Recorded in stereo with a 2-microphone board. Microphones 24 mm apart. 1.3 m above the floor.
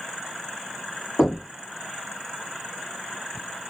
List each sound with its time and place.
1.2 s knocking: 85° left, 2.0 m